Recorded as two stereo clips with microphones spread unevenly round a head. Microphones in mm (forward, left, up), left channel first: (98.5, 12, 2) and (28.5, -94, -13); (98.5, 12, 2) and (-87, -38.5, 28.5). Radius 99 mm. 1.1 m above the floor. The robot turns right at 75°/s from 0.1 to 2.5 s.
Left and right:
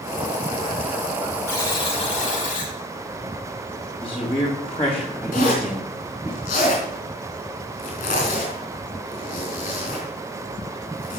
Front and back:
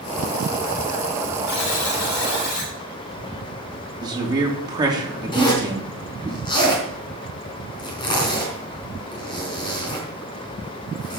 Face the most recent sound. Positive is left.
turn(degrees=85)